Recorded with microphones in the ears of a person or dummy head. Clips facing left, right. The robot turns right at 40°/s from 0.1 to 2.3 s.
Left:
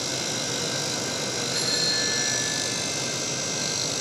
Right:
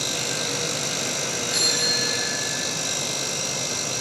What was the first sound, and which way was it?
A bicycle bell, 60° right.